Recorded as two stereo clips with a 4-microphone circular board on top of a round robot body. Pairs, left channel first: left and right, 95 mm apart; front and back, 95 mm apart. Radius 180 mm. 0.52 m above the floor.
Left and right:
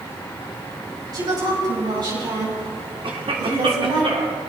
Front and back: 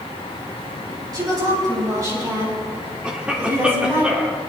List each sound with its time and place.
1.1 s a woman speaking: 135° right, 6.5 m; by 4.0 s 115° right, 7 m
3.0 s a cough: 100° right, 1.7 m